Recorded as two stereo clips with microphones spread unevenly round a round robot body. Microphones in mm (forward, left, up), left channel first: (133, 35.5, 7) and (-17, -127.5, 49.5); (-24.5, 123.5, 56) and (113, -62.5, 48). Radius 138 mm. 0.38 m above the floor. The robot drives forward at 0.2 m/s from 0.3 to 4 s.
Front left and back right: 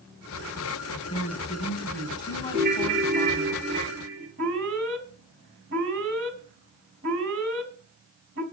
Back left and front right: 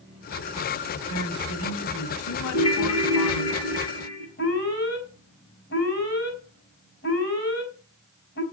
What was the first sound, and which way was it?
A woman speaking, 115° left.